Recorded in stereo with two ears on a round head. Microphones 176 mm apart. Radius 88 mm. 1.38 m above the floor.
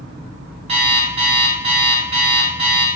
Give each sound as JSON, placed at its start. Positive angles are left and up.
{"t": 0.7, "sound": "an alarm clock", "side_deg": -30, "distance_m": 0.9}